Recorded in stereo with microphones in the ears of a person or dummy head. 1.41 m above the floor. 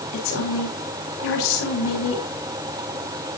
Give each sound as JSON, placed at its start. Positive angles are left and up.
{"t": 0.1, "sound": "a woman speaking", "side_deg": 85, "distance_m": 5.0}